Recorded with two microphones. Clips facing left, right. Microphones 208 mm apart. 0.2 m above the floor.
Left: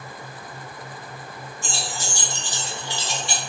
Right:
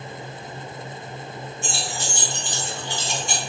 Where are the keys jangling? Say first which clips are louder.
Even; 70° right (ahead or behind), 2.5 m; by 3.4 s 45° right (ahead or behind), 1.9 m.